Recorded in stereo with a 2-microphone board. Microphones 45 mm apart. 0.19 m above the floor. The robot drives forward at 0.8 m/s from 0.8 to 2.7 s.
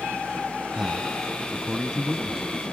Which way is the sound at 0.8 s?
10° right (ahead or behind).